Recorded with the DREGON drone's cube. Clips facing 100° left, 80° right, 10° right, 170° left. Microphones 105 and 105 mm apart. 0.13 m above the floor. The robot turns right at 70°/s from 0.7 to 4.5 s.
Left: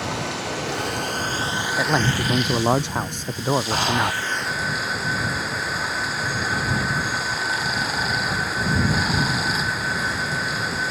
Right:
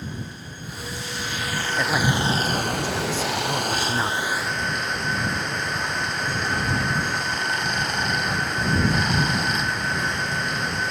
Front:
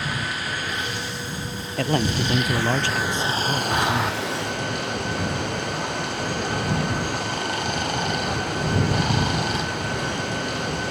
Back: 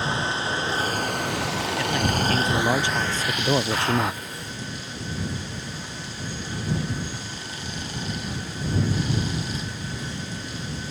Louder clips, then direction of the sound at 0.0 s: Left 9 dB, back 3 dB; 110° left.